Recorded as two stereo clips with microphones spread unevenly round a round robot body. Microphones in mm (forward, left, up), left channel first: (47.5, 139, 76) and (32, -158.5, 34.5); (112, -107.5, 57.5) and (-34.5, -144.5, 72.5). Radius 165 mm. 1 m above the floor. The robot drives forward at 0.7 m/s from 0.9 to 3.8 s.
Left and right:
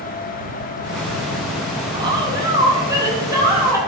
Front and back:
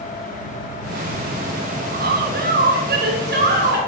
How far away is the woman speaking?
About 1.2 m.